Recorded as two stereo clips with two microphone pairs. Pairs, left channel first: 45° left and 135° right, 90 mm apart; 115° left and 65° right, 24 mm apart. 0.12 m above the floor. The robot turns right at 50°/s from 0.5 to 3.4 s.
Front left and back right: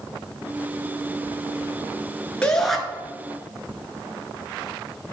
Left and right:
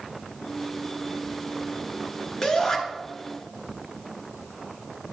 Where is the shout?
115° left, 1.3 m; by 2.8 s 135° left, 1.3 m.